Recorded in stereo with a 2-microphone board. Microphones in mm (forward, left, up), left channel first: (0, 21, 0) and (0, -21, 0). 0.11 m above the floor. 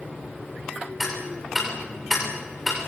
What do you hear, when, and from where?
1.0 s ticking: 5° right (ahead or behind), 6.5 m